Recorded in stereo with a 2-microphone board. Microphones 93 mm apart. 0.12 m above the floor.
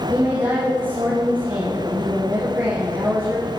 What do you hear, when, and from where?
0.1 s a woman speaking: 25° right (ahead or behind), 2.5 m